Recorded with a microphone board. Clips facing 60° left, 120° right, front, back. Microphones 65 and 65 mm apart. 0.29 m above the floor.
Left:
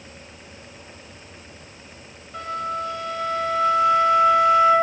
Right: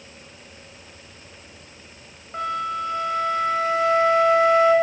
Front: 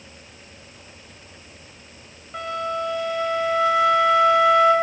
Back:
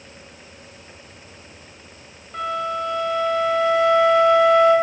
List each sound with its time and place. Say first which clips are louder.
2.3 s a flute: right 2 dB, back 2 dB; 80° right, 0.8 m